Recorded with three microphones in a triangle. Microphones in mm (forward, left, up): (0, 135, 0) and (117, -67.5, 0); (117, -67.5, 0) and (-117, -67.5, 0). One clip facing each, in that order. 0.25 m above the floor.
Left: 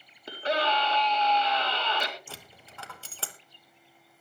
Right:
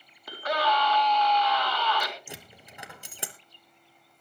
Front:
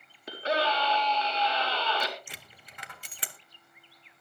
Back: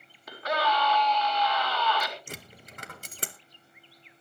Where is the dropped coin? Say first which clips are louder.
Right 3 dB, back 8 dB; 135° right, 1.1 m.